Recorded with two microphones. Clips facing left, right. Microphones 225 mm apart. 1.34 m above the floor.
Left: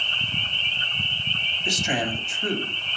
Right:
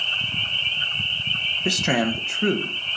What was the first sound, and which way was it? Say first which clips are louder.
A man speaking: right 5 dB; 65° right (ahead or behind).